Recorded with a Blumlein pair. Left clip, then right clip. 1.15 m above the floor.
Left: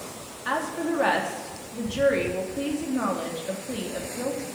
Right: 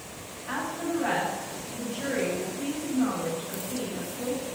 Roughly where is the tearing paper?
I don't hear tearing paper.